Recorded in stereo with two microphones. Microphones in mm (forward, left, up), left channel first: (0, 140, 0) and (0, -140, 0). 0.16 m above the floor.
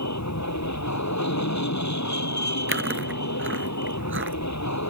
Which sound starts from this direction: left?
An aircraft, at 0.0 s.